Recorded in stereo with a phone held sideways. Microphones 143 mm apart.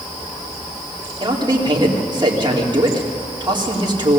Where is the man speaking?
30° right (ahead or behind), 3 m.